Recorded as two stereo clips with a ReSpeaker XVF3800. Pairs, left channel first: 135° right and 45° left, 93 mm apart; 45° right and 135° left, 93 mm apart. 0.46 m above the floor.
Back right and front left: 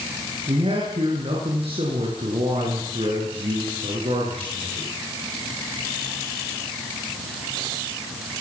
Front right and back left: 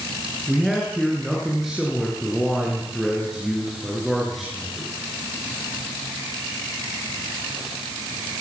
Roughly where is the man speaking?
Ahead left.